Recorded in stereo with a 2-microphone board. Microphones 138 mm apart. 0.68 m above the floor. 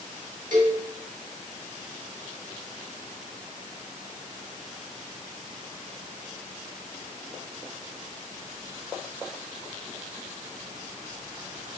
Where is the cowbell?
80° right, 3.5 m.